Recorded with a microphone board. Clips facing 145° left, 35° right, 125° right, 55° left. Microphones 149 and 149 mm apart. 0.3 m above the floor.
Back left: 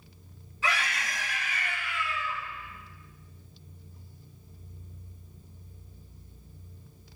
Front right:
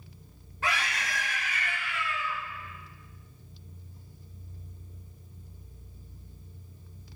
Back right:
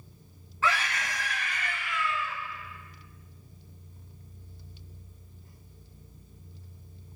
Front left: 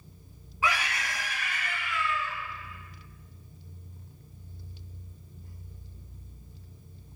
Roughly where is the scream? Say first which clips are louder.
Even, back right 1 dB; ahead.